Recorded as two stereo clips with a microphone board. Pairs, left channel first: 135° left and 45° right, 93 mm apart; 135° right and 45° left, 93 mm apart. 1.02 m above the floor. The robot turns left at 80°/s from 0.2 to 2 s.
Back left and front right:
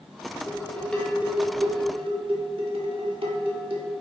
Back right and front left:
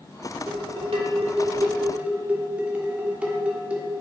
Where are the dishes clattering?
90° left, 1.7 m; by 3.9 s 30° right, 1.7 m.